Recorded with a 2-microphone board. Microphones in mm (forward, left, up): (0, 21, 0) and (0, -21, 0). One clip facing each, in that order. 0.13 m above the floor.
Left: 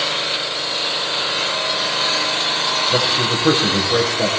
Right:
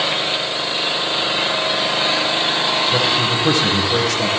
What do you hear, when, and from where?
0.0 s an engine running: 25° right (ahead or behind), 3.5 m
2.9 s a man speaking: 20° left (ahead or behind), 5 m